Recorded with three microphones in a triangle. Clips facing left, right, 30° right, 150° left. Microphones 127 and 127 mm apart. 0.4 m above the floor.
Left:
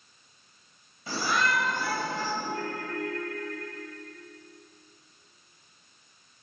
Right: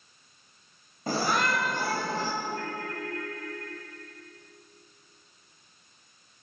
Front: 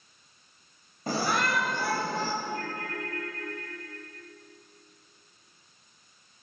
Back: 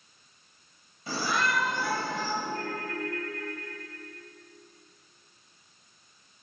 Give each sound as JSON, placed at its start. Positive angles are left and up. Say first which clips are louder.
{"t": 1.1, "sound": "a shout", "louder": "right 1 dB, front 2 dB", "azimuth_deg": -60, "distance_m": 2.0}
{"t": 2.4, "sound": "a ringtone", "louder": "left 1 dB, back 1 dB", "azimuth_deg": 105, "distance_m": 7.5}